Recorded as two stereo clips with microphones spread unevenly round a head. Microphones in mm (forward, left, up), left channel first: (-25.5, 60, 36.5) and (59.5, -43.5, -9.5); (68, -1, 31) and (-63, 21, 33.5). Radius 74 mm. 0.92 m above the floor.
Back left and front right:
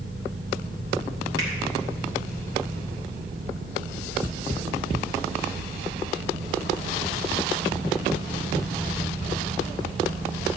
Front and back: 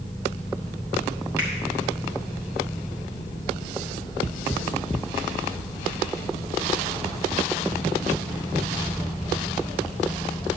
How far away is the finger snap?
About 3 m.